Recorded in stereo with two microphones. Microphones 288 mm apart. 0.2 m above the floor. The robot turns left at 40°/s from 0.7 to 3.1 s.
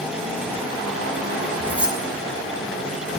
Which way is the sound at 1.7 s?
10° right (ahead or behind).